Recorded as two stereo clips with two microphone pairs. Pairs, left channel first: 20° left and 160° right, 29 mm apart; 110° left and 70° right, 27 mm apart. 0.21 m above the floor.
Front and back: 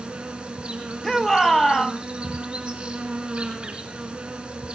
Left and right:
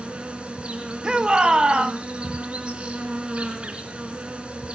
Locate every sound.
0.0 s an insect: 105° right, 3 m
1.0 s a shout: 50° right, 1.4 m